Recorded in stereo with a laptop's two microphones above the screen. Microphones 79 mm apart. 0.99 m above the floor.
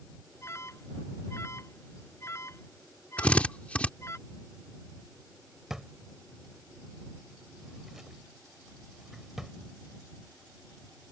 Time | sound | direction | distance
0.4 | an alarm | 35° left (ahead or behind) | ?
3.2 | a drill | 20° left (ahead or behind) | ?
5.7 | a drawer | 5° right (ahead or behind) | ?